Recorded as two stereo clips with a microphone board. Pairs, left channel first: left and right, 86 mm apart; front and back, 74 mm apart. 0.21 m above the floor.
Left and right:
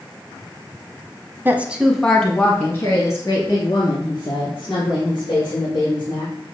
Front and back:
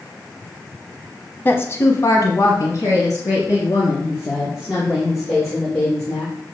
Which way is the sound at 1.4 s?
40° right.